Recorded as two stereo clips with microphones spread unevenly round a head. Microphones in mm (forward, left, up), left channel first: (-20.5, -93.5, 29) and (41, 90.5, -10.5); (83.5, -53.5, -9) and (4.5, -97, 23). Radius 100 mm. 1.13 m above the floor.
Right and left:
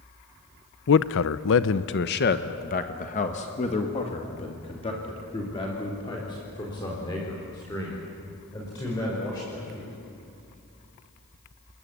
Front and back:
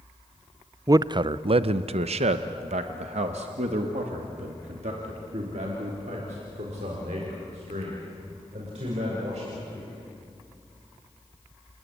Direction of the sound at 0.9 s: 90° right.